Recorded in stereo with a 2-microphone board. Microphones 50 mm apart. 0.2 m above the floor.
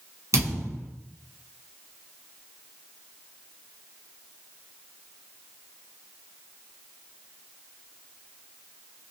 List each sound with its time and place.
0.3 s a thud: 80° right, 1.7 m